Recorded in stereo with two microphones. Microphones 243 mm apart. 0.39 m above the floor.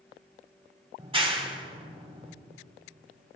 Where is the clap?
20° right (ahead or behind), 1.3 m.